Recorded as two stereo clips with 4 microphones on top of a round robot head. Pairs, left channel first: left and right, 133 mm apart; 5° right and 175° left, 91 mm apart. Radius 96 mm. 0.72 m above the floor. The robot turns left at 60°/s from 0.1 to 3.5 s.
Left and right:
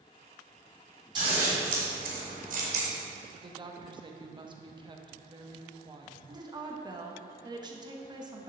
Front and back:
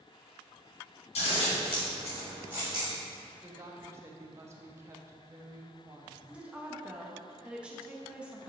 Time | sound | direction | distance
1.1 | scissors | 25° right | 2 m
3.4 | a woman speaking | 125° right | 0.9 m
6.3 | a woman speaking | 115° right | 1.0 m